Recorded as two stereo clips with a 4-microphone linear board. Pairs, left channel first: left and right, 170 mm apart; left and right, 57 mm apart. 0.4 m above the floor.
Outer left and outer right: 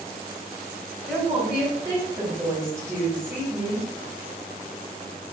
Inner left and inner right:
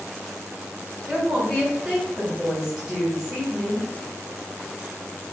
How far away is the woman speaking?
About 1.6 m.